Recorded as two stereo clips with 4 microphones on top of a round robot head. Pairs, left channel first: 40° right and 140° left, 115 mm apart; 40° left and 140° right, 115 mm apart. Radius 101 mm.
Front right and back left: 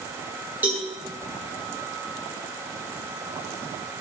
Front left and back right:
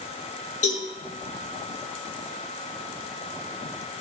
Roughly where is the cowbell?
Ahead left.